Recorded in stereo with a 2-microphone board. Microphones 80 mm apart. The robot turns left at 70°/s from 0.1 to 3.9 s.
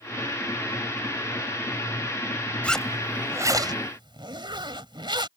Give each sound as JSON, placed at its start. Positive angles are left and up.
{"t": 2.6, "sound": "a zipper", "azimuth_deg": 15}